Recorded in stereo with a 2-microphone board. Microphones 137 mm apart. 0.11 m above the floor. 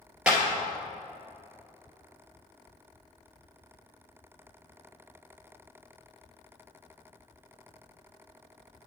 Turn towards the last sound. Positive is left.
turn(degrees=-5)  # may be behind; listen again after turning